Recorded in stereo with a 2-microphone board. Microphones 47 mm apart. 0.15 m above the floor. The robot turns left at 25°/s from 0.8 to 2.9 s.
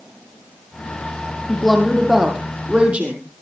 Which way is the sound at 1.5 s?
5° left.